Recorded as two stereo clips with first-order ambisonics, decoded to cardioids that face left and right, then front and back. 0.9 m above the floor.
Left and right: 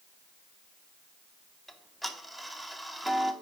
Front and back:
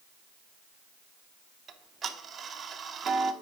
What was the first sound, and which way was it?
Ticking, straight behind.